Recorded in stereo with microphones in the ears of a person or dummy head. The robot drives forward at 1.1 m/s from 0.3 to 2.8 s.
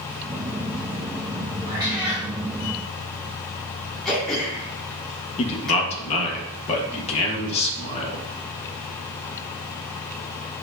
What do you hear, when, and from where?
1.7 s a cat meowing: 25° right (ahead or behind), 1.4 m; by 2.3 s 20° right (ahead or behind), 1.7 m
4.0 s throat clearing: centre (ahead or behind), 1.9 m
5.4 s a man speaking: 35° left (ahead or behind), 1.6 m